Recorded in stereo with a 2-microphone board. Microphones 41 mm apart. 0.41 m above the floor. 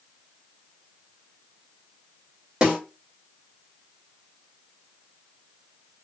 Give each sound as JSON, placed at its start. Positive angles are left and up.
{"t": 2.6, "sound": "a snare drum", "side_deg": -15, "distance_m": 1.5}